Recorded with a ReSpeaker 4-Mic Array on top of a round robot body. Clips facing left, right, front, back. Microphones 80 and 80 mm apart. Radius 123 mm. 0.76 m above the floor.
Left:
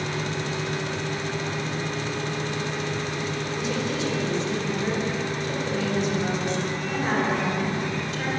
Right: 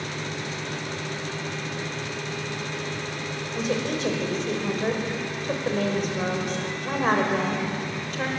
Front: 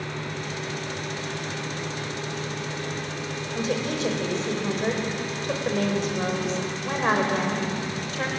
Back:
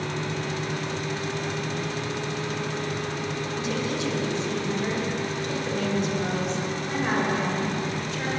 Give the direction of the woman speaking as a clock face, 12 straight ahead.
2 o'clock.